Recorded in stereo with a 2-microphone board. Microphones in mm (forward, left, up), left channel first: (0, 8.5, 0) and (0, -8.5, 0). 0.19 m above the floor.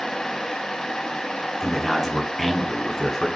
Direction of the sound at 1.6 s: 10° left (ahead or behind).